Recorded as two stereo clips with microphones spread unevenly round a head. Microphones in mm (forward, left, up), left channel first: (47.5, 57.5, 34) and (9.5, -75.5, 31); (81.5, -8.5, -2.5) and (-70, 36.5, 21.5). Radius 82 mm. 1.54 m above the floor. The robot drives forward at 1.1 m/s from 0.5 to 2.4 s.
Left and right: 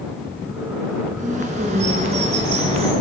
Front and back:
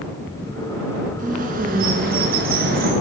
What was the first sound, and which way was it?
A bird, 155° right.